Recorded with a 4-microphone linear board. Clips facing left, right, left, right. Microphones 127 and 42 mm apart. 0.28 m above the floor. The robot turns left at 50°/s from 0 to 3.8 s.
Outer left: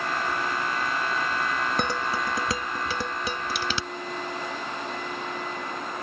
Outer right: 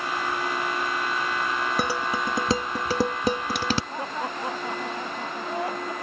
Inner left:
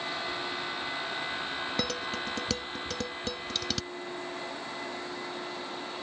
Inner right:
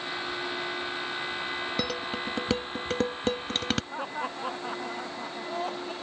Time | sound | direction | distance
1.8 | dishes clattering | 5° right (ahead or behind) | ?
3.9 | laughter | 85° right | ?